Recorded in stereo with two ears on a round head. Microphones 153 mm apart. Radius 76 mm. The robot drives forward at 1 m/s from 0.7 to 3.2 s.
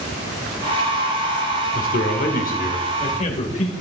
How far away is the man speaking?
About 1.6 m.